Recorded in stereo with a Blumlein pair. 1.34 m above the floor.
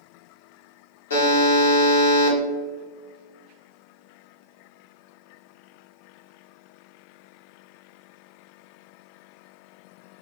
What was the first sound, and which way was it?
A buzzer, 65° left.